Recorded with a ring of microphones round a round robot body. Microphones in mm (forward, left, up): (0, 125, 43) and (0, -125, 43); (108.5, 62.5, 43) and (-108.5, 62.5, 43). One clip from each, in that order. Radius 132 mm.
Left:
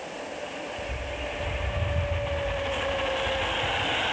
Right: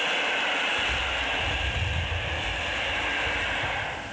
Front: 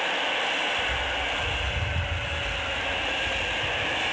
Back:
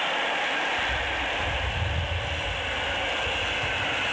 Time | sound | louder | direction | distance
0.8 | a bird | right 7 dB, even | straight behind | 5 m